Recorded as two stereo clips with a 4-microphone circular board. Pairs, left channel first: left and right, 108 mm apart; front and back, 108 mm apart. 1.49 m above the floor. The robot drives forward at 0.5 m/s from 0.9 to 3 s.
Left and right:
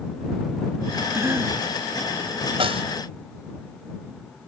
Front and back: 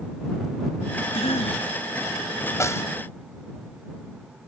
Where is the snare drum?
65° right.